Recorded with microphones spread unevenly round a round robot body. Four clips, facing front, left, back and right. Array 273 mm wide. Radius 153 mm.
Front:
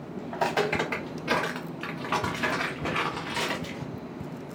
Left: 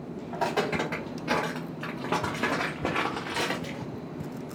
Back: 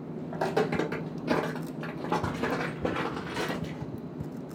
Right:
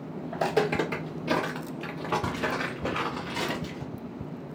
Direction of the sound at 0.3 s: 135° right.